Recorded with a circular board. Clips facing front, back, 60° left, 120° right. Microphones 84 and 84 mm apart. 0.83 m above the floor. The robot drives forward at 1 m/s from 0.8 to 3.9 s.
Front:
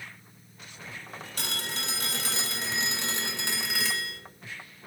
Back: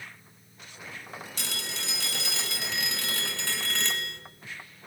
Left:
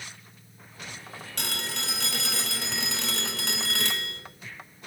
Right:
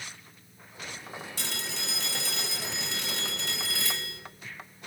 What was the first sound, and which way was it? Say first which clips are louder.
A phone ringing: front 4 dB, left 6 dB; 35° left.